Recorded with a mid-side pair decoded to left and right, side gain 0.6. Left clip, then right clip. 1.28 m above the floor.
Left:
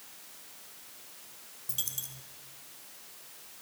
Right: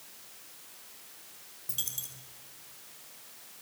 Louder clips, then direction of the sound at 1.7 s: Even; straight ahead.